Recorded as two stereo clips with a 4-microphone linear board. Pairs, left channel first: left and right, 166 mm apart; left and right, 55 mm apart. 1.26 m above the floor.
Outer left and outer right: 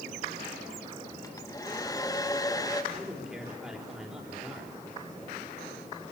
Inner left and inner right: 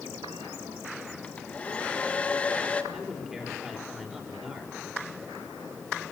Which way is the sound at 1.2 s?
20° left (ahead or behind).